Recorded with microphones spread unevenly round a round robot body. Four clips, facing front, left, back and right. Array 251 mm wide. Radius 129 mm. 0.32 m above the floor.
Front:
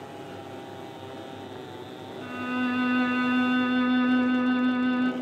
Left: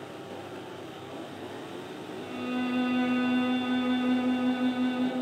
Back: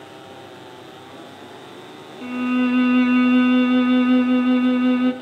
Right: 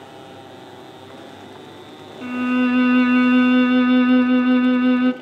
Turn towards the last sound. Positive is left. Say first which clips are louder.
# right 13 dB, back 9 dB
turn(degrees=-130)